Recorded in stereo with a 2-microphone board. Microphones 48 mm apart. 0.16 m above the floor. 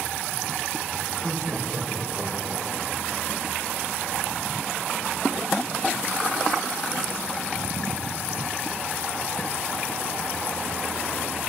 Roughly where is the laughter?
Centre.